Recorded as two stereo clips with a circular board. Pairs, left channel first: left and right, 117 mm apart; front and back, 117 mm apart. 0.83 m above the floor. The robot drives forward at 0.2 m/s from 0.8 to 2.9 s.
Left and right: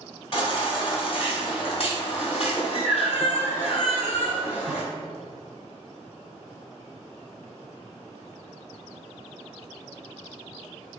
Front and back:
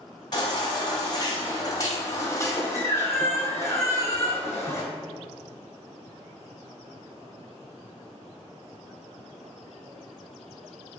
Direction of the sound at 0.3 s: 50° left.